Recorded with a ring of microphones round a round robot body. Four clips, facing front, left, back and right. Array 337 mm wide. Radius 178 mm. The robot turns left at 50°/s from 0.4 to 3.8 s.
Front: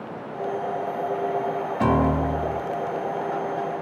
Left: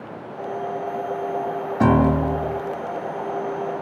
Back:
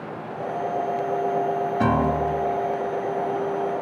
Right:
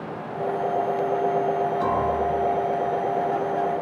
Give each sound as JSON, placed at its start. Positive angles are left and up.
{"t": 1.8, "sound": "a piano", "azimuth_deg": 105, "distance_m": 1.5}